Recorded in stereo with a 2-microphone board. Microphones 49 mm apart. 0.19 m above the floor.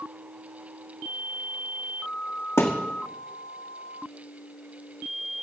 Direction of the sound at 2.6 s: 60° left (ahead or behind).